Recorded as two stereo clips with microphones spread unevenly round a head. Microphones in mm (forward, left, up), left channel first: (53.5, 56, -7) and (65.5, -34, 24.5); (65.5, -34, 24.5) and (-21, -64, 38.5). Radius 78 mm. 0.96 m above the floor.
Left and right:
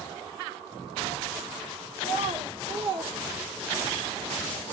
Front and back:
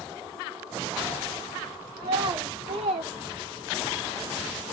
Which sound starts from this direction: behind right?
A child speaking, at 2.0 s.